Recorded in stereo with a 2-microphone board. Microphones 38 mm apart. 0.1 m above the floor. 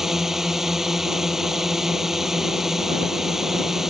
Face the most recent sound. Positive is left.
turn(degrees=-10)  # may be behind; listen again after turning